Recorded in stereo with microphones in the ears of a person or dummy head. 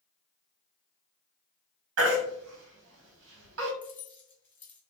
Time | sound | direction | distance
2.0 | a baby crying | 70° right (ahead or behind) | 1.3 m
3.8 | keys jangling | 10° left (ahead or behind) | 0.5 m